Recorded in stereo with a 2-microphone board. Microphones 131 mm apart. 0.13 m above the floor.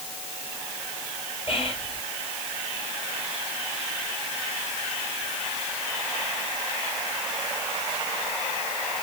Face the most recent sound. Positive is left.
turn(degrees=45)  # may be behind; listen again after turning